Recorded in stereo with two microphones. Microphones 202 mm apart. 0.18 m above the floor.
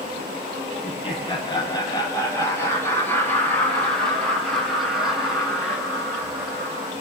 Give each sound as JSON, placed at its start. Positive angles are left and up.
{"t": 0.8, "sound": "laughter", "side_deg": 25, "distance_m": 5.0}